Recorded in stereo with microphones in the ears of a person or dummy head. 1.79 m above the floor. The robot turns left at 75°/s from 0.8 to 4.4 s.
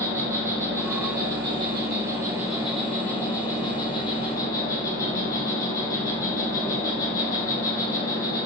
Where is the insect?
15° right (ahead or behind), 1.7 m; by 8.5 s 20° left (ahead or behind), 1.7 m.